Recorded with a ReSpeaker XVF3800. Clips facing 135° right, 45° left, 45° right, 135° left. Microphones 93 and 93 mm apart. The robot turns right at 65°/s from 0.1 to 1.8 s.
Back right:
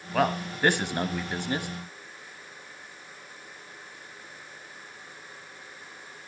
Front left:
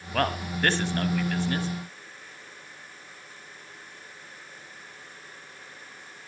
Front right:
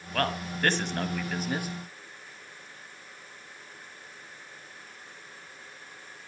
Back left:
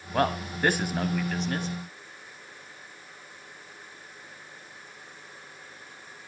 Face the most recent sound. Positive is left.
turn(degrees=-100)